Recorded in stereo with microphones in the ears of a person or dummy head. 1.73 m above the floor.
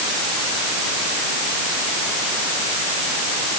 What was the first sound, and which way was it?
Only background noise.